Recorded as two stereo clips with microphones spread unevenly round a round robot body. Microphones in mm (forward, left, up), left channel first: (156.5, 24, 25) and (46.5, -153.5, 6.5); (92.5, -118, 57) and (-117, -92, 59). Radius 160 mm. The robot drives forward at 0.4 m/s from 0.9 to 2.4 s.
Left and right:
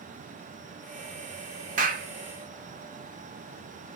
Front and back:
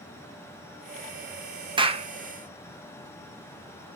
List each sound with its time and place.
1.8 s a clap: 125° right, 0.7 m; by 2.1 s 135° right, 0.8 m